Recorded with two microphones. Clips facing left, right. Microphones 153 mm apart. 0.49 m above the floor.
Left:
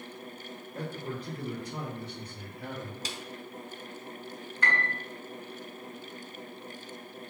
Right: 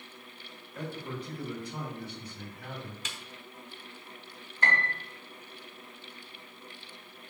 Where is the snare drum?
35° left (ahead or behind), 0.8 m.